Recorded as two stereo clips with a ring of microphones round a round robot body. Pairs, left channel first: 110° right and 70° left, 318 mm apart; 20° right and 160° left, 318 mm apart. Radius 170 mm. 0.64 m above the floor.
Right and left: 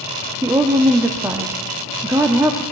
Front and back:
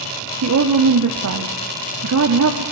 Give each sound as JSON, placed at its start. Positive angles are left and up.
{"t": 0.4, "sound": "a woman speaking", "azimuth_deg": 145, "distance_m": 1.5}